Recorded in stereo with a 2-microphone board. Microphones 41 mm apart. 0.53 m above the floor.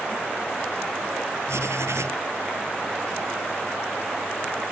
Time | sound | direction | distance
1.5 | writing | 80° right | ?